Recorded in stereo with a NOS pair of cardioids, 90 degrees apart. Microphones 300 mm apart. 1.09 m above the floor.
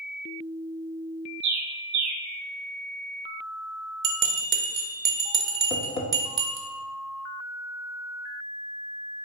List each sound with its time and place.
1.4 s a bird: 70° right, 0.7 m
4.0 s a bell: 40° right, 0.8 m
5.7 s tapping: 20° left, 0.8 m